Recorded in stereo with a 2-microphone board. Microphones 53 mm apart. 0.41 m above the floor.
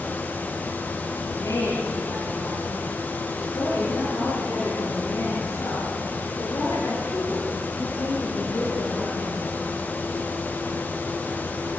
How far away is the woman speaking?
About 8.5 m.